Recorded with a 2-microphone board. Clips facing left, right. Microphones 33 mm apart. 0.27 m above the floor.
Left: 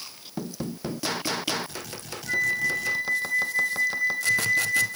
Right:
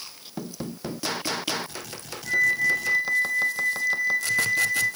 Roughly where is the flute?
Right.